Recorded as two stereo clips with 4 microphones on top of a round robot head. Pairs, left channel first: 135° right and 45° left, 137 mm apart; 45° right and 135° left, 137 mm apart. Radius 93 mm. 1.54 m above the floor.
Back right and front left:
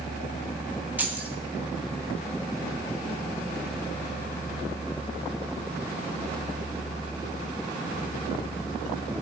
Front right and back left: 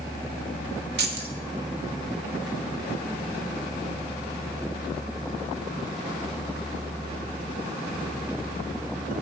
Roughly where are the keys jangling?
Behind left.